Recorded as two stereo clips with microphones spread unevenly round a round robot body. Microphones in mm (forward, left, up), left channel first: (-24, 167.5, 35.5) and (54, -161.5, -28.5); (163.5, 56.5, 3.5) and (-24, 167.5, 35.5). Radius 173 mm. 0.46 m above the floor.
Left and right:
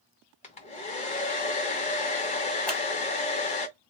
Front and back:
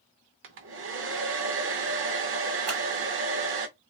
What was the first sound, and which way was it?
A hair dryer, straight behind.